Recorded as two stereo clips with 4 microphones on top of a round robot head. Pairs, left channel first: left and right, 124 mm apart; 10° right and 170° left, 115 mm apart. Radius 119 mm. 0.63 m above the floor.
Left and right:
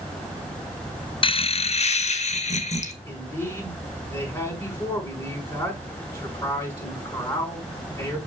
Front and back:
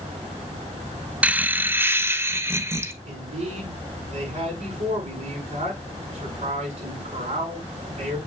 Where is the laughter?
95° left, 0.7 m; by 2.9 s 100° left, 2.0 m.